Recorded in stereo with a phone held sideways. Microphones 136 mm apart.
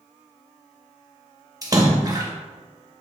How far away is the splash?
About 1.2 m.